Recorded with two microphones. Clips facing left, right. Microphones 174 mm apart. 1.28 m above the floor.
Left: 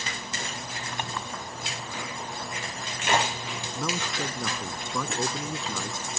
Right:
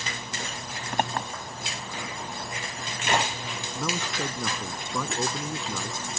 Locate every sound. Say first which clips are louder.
0.9 s a clink: right 8 dB; 55° right (ahead or behind)
3.8 s a man speaking: right 1 dB; centre (ahead or behind)